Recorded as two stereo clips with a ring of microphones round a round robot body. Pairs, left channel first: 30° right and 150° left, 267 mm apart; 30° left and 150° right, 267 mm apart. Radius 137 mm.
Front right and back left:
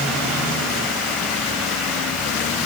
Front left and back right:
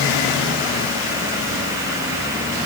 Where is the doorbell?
I don't hear a doorbell.